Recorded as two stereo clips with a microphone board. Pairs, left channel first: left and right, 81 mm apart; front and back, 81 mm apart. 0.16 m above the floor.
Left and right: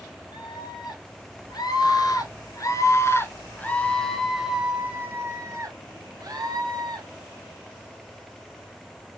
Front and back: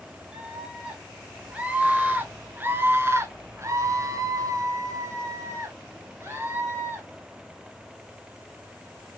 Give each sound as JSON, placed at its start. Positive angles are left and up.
{"t": 0.3, "sound": "a scream", "azimuth_deg": 100, "distance_m": 3.5}